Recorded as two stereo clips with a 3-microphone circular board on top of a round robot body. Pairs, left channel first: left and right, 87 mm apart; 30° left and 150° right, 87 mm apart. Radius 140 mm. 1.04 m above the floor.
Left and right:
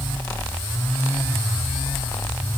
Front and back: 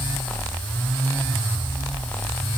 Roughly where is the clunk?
No clunk in this recording.